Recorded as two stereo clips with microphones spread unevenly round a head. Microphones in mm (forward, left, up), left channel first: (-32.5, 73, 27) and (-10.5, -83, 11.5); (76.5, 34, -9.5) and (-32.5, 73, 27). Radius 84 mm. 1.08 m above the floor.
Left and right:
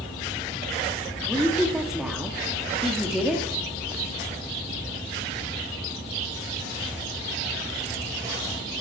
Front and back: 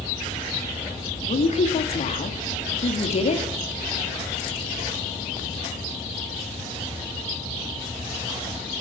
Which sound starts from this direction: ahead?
A woman speaking, at 1.3 s.